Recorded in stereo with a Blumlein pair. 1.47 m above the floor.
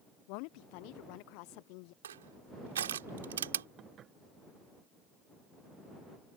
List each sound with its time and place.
0.3 s a woman speaking: 45° left
2.0 s crushing: 65° right
3.8 s dishes clattering: 25° right